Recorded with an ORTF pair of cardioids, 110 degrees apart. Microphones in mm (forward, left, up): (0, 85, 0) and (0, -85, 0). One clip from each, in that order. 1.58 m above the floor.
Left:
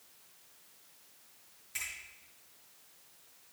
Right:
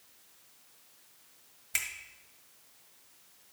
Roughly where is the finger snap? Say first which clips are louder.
Right 6 dB; right.